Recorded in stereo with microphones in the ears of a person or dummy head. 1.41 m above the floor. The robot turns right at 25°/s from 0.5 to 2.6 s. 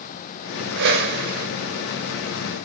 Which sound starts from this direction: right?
A whoosh, at 0.8 s.